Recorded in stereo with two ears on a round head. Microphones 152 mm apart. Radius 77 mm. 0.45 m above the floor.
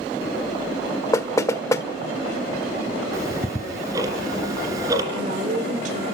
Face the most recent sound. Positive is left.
turn(degrees=-45)  # may be behind; listen again after turning